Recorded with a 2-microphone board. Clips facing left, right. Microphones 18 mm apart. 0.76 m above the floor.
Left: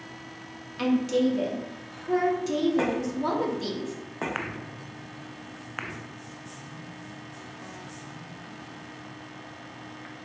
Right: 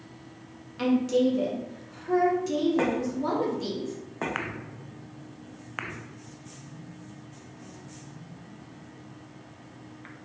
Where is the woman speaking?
15° left (ahead or behind), 0.5 m.